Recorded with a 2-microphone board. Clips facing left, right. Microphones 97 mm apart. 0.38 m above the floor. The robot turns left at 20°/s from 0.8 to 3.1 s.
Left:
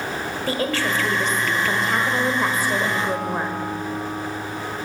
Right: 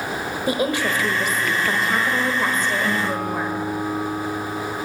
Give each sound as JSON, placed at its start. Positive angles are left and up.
{"t": 0.5, "sound": "a woman speaking", "azimuth_deg": -155, "distance_m": 1.2}
{"t": 2.8, "sound": "a guitar", "side_deg": -45, "distance_m": 3.0}